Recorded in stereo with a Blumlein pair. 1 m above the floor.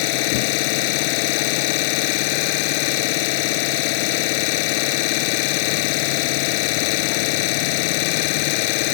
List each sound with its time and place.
0.0 s an engine running: 45° left